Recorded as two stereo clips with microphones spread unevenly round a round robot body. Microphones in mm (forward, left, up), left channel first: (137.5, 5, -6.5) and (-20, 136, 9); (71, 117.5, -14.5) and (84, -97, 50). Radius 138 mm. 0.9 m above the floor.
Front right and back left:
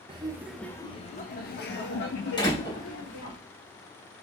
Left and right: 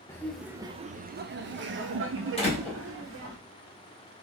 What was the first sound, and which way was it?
Laughter, 95° left.